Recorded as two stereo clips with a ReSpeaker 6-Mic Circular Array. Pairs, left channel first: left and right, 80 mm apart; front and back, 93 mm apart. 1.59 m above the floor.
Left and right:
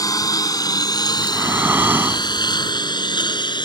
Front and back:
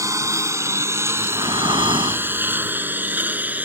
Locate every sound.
0.0 s a lawn mower: 130° left; by 3.6 s 110° left
1.2 s breathing: 155° right